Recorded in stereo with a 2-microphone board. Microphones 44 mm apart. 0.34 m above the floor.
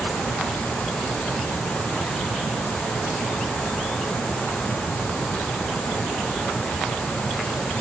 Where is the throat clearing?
No throat clearing in this recording.